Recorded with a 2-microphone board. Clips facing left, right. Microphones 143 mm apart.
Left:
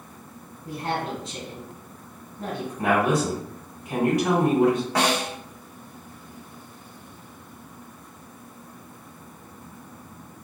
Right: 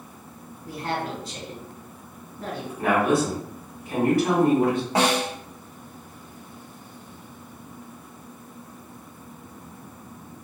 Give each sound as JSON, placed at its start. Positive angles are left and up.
{"t": 0.7, "sound": "a woman speaking", "side_deg": 25, "distance_m": 1.6}
{"t": 2.8, "sound": "a woman speaking", "side_deg": 20, "distance_m": 1.7}
{"t": 5.0, "sound": "a snare drum", "side_deg": -25, "distance_m": 1.9}